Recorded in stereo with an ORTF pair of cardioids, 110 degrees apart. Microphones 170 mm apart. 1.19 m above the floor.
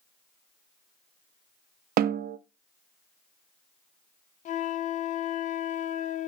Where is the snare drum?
60° right, 0.9 m.